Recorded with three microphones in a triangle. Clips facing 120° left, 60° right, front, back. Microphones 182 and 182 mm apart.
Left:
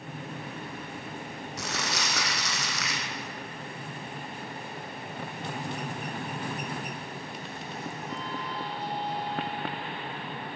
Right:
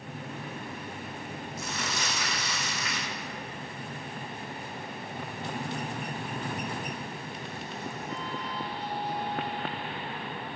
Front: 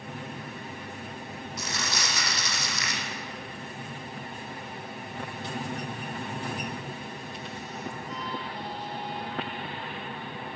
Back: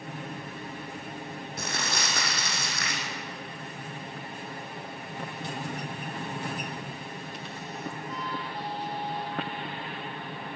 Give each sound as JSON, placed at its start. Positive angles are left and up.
{"t": 1.6, "sound": "crumpling", "azimuth_deg": 140, "distance_m": 4.5}